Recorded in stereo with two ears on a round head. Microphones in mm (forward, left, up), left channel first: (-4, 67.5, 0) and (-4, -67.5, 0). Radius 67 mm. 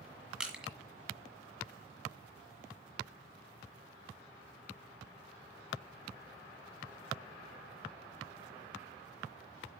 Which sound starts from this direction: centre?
Crushing, at 0.4 s.